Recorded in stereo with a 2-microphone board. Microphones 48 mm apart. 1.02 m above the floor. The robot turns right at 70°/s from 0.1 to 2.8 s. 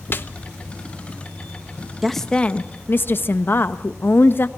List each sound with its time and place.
0.1 s a snare drum: 45° left (ahead or behind), 1.0 m
2.0 s a woman speaking: 5° right, 1.2 m; by 4.5 s 50° left, 1.2 m